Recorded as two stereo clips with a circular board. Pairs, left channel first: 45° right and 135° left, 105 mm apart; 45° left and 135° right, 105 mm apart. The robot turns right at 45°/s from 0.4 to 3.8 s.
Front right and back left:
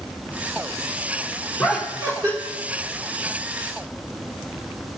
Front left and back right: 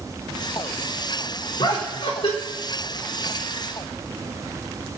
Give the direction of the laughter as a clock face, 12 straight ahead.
10 o'clock.